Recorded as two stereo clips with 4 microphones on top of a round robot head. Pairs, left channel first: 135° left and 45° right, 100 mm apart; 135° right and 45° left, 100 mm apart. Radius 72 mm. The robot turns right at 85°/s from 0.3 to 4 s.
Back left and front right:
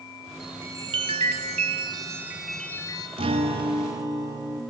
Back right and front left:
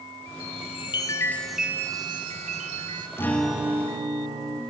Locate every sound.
0.4 s a chime: 135° right, 1.1 m; by 3.1 s 90° left, 1.1 m
3.2 s a guitar: 70° right, 2.5 m; by 4.6 s straight ahead, 2.5 m